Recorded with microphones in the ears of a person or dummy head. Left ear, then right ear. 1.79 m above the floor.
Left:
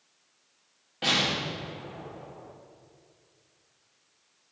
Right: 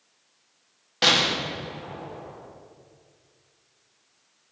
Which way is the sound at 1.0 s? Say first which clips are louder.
Right 6 dB; 55° right (ahead or behind).